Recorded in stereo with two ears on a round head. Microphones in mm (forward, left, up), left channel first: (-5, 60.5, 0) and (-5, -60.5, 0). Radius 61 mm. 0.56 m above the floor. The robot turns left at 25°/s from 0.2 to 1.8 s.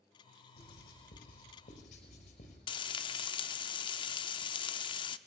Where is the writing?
90° left, 5 m; by 2.6 s 60° left, 5 m.